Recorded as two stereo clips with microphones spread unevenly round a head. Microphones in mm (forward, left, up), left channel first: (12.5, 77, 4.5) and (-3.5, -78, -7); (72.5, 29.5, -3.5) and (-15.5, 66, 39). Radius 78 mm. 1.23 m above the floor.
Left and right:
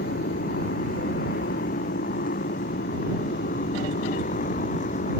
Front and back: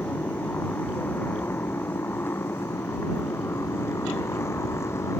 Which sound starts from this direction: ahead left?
A motorcycle, at 0.0 s.